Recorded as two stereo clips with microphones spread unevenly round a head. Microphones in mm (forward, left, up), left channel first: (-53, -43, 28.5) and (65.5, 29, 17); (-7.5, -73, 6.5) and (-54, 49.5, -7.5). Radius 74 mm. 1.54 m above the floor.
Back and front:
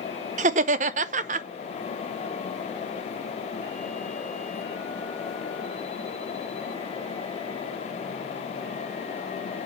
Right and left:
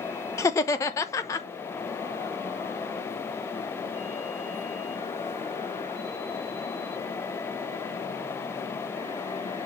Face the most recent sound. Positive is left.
turn(degrees=-5)